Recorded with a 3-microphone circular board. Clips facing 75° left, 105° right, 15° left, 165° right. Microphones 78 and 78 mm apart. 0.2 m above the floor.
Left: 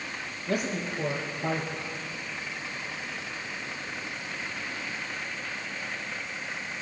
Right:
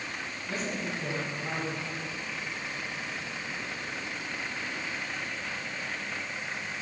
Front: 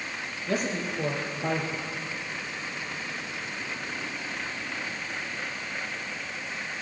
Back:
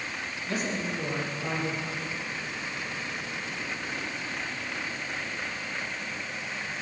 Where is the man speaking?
55° left, 5.5 m.